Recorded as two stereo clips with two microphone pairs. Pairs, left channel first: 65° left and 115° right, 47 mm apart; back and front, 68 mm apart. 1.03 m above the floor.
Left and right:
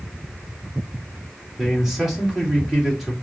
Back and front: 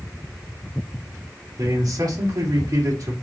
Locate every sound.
1.6 s a man speaking: 25° right, 2.5 m